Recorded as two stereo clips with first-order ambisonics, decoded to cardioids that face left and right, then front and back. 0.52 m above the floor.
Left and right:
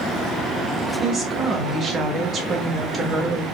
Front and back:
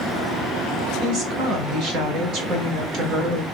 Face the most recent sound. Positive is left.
turn(degrees=-150)